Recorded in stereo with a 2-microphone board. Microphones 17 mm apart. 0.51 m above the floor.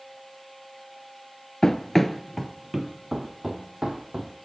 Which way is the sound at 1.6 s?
35° left (ahead or behind).